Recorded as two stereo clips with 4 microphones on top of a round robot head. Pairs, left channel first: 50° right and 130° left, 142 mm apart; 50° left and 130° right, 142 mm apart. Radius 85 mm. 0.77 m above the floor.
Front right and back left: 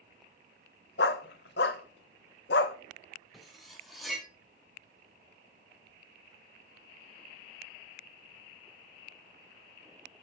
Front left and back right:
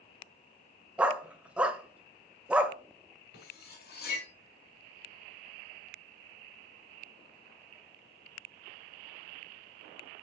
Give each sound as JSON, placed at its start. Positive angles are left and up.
{"t": 1.0, "sound": "a dog barking", "azimuth_deg": -50, "distance_m": 0.7}
{"t": 3.3, "sound": "cutlery clinking", "azimuth_deg": 40, "distance_m": 2.5}